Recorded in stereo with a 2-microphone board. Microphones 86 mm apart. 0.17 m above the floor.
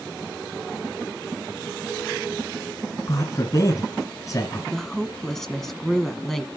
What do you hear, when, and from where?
3.1 s a man speaking: 40° left (ahead or behind), 2 m
4.7 s a woman speaking: 5° left (ahead or behind), 1.2 m